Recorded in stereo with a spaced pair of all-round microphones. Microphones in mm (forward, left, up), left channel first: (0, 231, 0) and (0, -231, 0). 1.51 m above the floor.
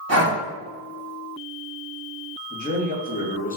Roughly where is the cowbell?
I don't hear a cowbell.